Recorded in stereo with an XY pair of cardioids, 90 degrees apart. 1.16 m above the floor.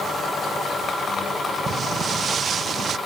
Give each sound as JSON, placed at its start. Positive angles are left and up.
{"t": 1.7, "sound": "footsteps", "azimuth_deg": -45}